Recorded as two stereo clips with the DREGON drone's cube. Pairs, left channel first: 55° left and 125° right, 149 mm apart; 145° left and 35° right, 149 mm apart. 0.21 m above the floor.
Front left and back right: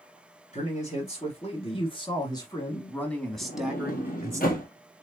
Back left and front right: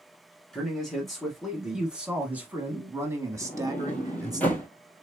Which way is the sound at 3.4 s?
65° left.